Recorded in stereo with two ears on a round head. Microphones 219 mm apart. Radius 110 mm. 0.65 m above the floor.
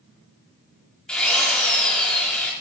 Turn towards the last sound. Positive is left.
turn(degrees=5)  # may be behind; listen again after turning